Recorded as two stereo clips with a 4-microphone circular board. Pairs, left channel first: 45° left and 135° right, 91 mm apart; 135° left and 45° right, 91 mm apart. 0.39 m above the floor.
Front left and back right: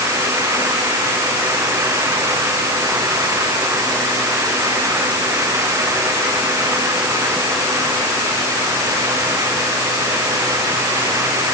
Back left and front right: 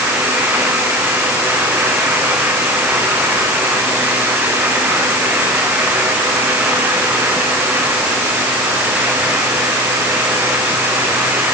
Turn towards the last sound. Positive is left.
No sound to turn to.